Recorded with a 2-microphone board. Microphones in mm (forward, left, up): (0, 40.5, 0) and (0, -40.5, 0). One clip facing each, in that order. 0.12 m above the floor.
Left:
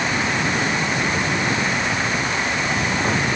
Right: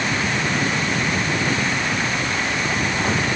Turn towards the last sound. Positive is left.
No sound to turn to.